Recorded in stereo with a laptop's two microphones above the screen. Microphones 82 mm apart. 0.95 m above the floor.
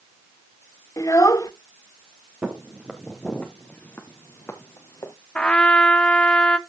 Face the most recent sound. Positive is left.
turn(degrees=15)  # may be behind; listen again after turning